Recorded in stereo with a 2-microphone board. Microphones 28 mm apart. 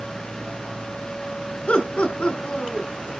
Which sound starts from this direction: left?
Laughter, at 1.7 s.